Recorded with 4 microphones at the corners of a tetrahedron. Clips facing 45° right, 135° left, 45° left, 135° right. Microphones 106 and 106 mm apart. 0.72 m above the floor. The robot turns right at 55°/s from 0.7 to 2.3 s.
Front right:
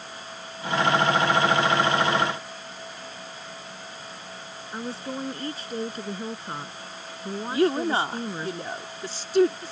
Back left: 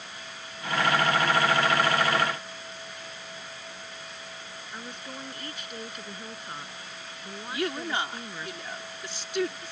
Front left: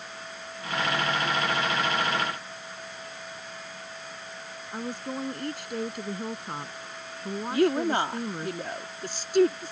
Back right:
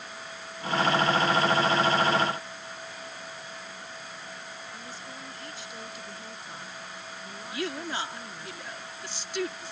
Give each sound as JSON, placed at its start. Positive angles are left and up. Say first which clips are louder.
{"t": 4.7, "sound": "a woman speaking", "louder": "front right 9 dB, front left 9 dB", "azimuth_deg": 10}
{"t": 7.5, "sound": "a woman speaking", "louder": "front right 8 dB, front left 10 dB", "azimuth_deg": 5}